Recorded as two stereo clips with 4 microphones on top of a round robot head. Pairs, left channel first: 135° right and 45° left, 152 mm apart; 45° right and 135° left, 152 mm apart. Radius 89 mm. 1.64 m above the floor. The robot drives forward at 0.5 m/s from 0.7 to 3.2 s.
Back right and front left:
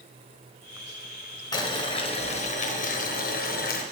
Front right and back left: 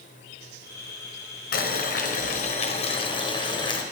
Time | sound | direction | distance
1.5 | boiling | 70° right | 1.3 m